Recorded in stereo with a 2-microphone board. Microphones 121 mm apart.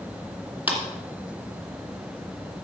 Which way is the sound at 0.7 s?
15° right (ahead or behind).